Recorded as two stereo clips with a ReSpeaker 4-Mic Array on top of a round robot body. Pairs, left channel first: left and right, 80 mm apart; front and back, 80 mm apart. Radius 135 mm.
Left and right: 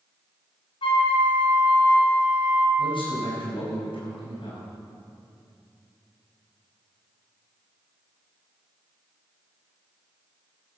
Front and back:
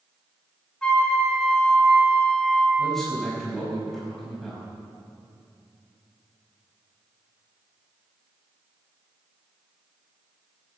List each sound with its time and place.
0.8 s a flute: 80° left, 2.5 m
2.8 s a man speaking: 90° left, 5.5 m